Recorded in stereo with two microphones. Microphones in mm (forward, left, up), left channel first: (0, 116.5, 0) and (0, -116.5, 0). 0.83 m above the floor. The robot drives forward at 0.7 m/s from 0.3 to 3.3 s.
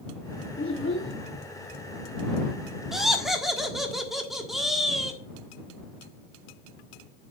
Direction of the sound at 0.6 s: 60° left (ahead or behind).